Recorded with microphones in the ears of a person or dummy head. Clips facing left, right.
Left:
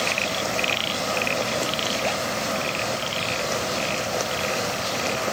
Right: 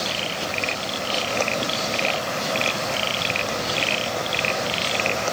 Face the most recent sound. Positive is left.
No sound to turn to.